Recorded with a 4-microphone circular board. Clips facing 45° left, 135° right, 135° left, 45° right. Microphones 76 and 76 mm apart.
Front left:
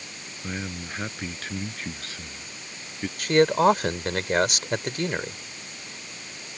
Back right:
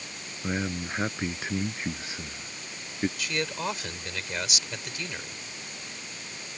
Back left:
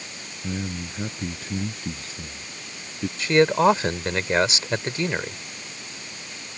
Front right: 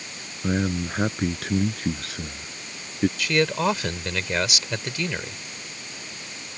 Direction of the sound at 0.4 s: 60° right.